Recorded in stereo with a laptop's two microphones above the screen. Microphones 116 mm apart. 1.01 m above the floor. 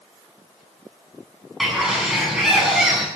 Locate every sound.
1.6 s a bird: centre (ahead or behind), 7.5 m